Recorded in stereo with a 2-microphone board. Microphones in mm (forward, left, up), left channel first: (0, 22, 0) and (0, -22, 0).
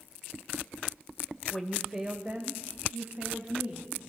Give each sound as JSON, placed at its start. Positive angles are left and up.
{"t": 1.5, "sound": "a woman speaking", "side_deg": 15, "distance_m": 1.4}